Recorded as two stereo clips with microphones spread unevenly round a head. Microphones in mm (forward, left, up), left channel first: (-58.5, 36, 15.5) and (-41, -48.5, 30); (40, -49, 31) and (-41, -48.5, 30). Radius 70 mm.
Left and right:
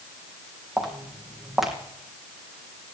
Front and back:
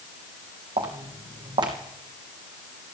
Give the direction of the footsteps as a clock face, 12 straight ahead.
5 o'clock.